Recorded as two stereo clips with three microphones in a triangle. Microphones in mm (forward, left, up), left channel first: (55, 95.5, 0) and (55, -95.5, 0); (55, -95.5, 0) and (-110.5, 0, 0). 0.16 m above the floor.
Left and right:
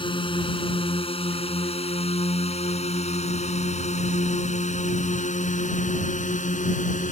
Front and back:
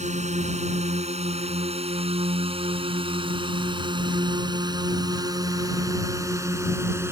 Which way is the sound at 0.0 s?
135° left.